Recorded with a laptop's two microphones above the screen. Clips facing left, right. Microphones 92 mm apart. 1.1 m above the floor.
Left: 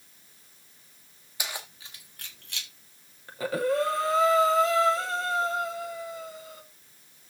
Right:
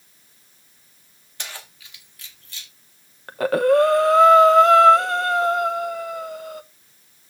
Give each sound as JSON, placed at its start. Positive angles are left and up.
{"t": 1.4, "sound": "keys jangling", "side_deg": 10, "distance_m": 1.5}
{"t": 3.3, "sound": "breathing", "side_deg": -65, "distance_m": 0.7}